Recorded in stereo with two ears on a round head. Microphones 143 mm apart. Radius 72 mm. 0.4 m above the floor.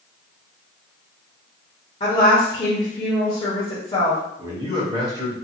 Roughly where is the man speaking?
Right.